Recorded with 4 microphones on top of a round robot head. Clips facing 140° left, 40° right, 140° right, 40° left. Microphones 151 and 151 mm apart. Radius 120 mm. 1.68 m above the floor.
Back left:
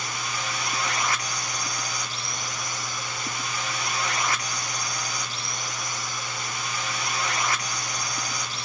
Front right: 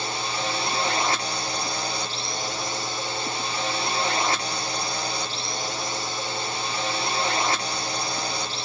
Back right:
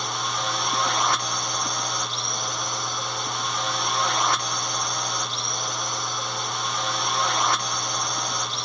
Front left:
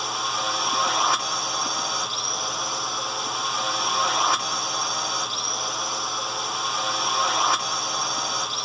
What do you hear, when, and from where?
0.0 s a drone: 45° right